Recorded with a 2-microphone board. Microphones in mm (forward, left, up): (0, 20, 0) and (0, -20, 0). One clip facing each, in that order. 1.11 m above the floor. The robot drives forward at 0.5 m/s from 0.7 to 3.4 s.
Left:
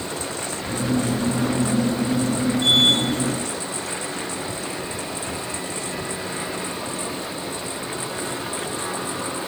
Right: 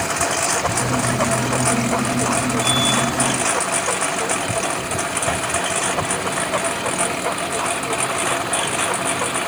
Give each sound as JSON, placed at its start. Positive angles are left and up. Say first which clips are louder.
{"t": 0.0, "sound": "a lawn mower", "louder": "right 8 dB", "side_deg": -80}